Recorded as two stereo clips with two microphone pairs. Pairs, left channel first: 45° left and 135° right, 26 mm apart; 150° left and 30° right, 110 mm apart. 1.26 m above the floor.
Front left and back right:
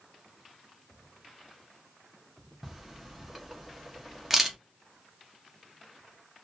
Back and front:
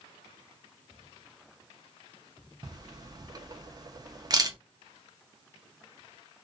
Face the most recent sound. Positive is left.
turn(degrees=-60)